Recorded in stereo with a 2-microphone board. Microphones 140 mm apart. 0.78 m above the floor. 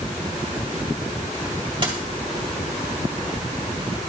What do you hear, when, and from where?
1.8 s a dropped coin: 35° right (ahead or behind), 2 m